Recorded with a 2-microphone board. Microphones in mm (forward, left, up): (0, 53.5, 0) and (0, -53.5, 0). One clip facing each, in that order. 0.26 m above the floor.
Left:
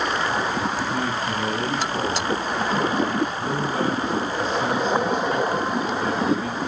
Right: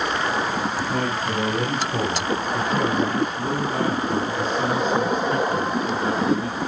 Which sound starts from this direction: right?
A man speaking, at 0.9 s.